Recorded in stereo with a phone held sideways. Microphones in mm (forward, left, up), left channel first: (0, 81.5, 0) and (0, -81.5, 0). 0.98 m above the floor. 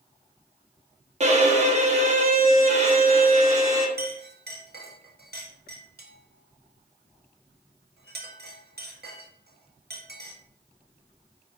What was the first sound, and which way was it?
A violin, 45° right (ahead or behind).